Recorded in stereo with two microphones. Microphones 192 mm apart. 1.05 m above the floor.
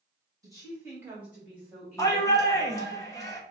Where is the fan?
I don't hear a fan.